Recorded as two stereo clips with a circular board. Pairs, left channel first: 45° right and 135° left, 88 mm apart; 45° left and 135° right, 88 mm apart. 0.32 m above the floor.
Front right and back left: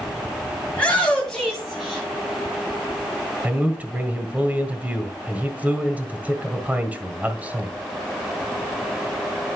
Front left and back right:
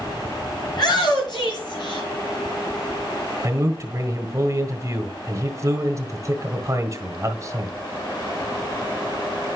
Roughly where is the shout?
Ahead left.